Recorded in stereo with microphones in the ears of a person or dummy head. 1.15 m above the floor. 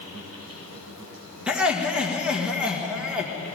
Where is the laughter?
5° right (ahead or behind), 1.6 m.